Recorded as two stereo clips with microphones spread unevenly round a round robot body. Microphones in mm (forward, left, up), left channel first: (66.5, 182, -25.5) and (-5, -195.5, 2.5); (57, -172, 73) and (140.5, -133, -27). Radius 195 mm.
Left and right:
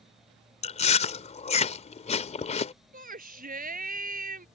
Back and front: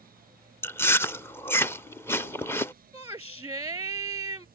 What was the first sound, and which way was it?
Chewing, 25° left.